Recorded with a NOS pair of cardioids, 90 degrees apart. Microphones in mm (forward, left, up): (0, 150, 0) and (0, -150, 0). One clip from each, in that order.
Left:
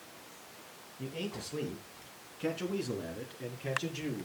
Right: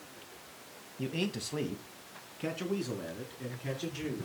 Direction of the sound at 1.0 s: 50° right.